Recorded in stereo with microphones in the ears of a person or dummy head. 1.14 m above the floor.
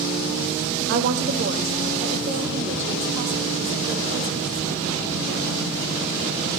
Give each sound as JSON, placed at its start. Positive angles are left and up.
{"t": 0.9, "sound": "a woman speaking", "side_deg": -60, "distance_m": 1.3}